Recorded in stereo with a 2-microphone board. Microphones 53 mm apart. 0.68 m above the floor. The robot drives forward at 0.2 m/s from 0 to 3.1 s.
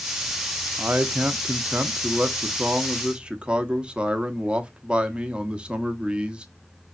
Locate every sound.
0.8 s a man speaking: 30° right (ahead or behind), 0.6 m; by 6.5 s 20° right (ahead or behind), 0.8 m